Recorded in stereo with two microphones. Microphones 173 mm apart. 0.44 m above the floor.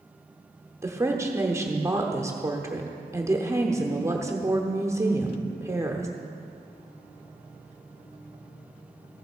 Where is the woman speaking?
15° right (ahead or behind), 0.9 m.